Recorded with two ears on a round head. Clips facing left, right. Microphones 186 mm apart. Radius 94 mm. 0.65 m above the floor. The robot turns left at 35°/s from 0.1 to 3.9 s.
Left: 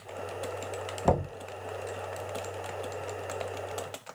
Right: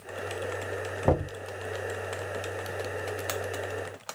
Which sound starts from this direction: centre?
Knocking, at 1.1 s.